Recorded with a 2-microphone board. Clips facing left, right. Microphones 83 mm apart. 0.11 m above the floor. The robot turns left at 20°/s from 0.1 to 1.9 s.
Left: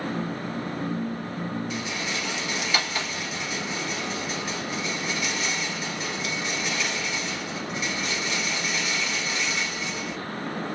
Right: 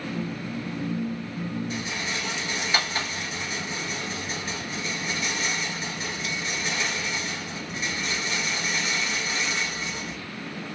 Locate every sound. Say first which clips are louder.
1.7 s a rattle: left 1 dB; 40° right (ahead or behind), 1.1 m; by 10.2 s 35° right (ahead or behind), 1.1 m